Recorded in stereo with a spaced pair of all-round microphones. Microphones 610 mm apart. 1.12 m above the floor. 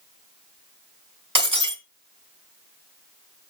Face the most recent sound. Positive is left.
turn(degrees=-30)  # may be behind; listen again after turning